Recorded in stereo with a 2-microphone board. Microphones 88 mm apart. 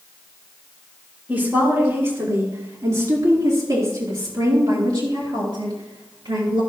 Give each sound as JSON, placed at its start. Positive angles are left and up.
{"t": 1.3, "sound": "a woman speaking", "side_deg": -25, "distance_m": 3.0}